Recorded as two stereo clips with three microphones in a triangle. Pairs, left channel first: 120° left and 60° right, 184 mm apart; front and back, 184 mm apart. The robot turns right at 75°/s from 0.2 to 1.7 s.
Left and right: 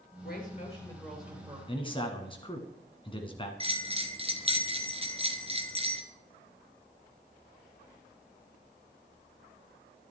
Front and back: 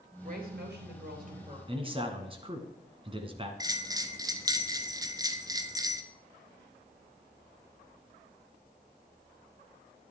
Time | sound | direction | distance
0.2 | a woman speaking | 140° left | 3.5 m
1.7 | a man speaking | 150° left | 1.4 m
3.6 | a bell | 110° right | 0.8 m